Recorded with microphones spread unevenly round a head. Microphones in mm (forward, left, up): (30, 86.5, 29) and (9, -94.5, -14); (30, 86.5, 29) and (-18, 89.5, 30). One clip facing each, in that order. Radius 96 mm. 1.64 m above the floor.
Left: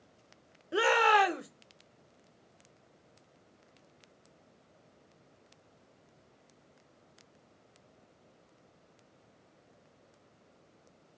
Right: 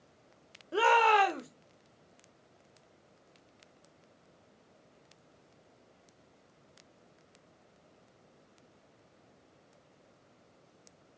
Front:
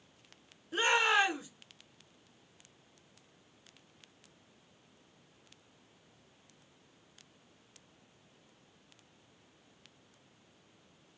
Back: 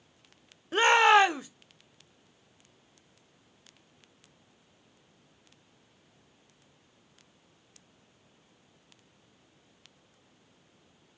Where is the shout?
155° left, 0.8 m.